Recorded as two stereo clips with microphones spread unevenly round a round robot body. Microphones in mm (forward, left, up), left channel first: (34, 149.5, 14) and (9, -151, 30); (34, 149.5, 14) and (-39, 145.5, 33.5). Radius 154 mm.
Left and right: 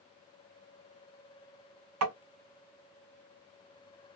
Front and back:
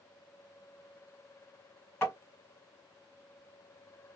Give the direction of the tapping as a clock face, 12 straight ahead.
2 o'clock.